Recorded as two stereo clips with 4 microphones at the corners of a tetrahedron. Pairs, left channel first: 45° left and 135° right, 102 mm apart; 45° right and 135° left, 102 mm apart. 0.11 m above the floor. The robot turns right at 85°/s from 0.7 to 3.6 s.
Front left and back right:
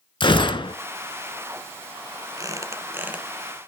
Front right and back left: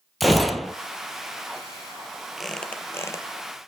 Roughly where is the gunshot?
Ahead left.